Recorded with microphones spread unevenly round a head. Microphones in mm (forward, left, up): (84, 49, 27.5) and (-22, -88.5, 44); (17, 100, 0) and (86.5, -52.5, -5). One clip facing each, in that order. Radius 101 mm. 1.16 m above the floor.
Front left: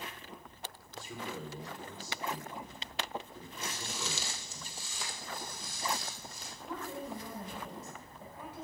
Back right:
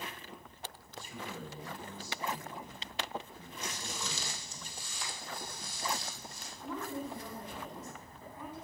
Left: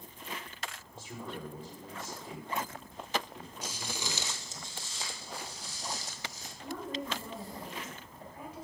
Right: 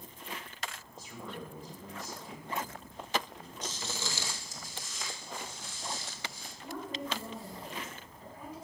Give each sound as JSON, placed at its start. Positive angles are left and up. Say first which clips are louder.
{"t": 0.9, "sound": "a man speaking", "louder": "front left 2 dB, left 1 dB", "azimuth_deg": 55, "distance_m": 4.5}
{"t": 3.6, "sound": "footsteps", "louder": "front left 1 dB, right 1 dB", "azimuth_deg": 40, "distance_m": 1.6}
{"t": 6.6, "sound": "a woman speaking", "louder": "back right 2 dB, left 1 dB", "azimuth_deg": 85, "distance_m": 6.5}